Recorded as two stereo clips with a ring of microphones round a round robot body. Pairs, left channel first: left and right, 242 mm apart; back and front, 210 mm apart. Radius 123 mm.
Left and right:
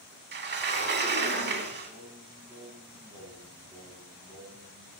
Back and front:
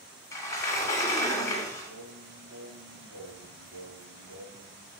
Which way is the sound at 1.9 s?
5° right.